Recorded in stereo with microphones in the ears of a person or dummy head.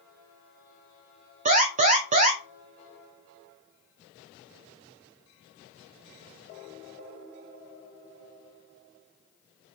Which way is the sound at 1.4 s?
35° right (ahead or behind).